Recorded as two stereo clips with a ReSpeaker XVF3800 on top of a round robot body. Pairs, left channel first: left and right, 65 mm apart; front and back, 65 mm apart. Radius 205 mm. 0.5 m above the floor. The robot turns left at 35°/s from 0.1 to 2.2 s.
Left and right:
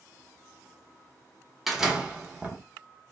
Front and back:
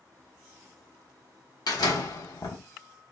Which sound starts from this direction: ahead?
A door slam, at 1.7 s.